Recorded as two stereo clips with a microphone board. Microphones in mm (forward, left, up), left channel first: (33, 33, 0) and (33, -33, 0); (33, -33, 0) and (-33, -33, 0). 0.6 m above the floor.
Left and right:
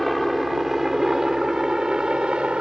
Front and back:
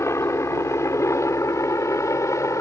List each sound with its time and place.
0.0 s a helicopter: straight ahead; by 2.6 s 20° right